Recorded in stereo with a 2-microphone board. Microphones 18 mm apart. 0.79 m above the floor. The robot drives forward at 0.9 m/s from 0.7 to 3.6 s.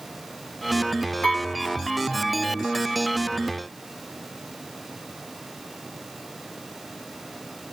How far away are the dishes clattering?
About 3 m.